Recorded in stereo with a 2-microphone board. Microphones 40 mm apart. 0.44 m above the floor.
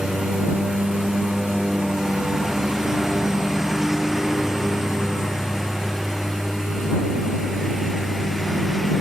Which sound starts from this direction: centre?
A lawn mower, at 0.0 s.